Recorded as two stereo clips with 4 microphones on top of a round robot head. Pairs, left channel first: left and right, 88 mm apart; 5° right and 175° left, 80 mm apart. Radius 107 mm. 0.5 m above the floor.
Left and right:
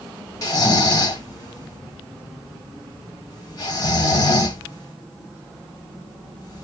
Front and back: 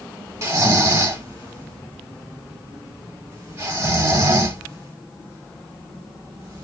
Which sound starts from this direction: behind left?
Snoring, at 0.4 s.